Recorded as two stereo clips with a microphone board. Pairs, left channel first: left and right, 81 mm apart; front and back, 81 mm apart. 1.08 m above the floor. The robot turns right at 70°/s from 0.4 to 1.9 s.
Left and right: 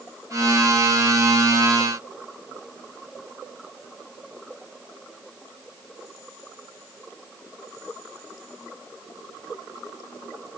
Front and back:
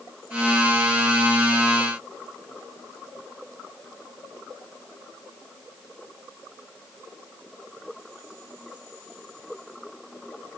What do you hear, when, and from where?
Only background noise.